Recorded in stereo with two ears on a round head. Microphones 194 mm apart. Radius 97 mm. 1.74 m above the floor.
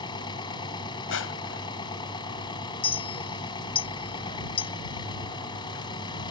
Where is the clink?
25° left (ahead or behind).